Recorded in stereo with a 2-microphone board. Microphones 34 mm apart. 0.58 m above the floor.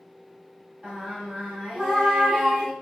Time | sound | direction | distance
0.8 | singing | 20° right (ahead or behind) | 1.4 m